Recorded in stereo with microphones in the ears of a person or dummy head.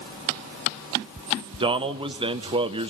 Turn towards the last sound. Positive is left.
turn(degrees=-25)  # may be behind; listen again after turning